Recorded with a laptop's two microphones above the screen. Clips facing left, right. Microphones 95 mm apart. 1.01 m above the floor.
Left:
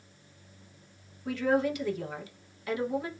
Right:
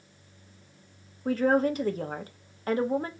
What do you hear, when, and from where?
1.2 s a woman speaking: 40° right (ahead or behind), 0.8 m